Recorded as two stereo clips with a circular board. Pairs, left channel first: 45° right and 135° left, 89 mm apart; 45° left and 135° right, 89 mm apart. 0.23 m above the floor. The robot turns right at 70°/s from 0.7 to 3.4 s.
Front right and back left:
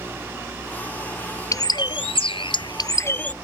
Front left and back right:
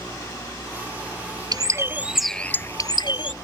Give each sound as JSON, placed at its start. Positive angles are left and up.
{"t": 1.5, "sound": "a bird", "azimuth_deg": -95}